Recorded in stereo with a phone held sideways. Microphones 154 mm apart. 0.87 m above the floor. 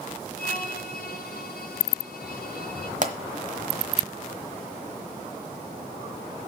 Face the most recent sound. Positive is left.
turn(degrees=-50)  # may be behind; listen again after turning